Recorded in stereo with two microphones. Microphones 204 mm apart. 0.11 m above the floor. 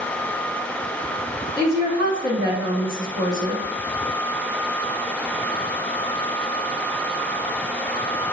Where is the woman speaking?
20° right (ahead or behind), 1.1 m.